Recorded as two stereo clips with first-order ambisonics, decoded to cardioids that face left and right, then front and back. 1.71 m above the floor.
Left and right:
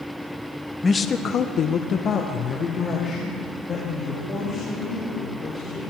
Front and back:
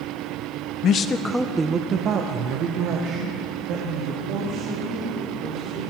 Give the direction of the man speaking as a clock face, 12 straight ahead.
11 o'clock.